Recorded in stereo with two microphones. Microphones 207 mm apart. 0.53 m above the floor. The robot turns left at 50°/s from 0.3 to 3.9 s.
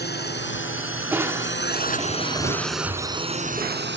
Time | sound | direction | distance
0.0 | a drone | 50° left (ahead or behind) | ?
1.1 | crushing | 15° right | ?